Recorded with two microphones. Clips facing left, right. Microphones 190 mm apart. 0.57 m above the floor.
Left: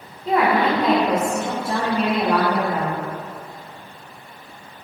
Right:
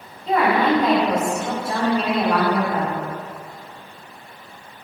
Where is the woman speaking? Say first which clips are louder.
Even; 35° left (ahead or behind), 1.5 m.